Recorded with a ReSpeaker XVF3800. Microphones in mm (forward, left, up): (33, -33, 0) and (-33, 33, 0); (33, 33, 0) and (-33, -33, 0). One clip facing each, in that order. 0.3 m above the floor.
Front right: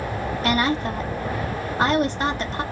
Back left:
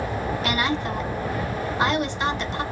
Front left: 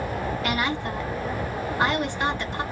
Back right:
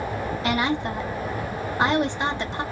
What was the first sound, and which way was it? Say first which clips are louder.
A woman speaking: front right 5 dB, back right 5 dB; 75° right.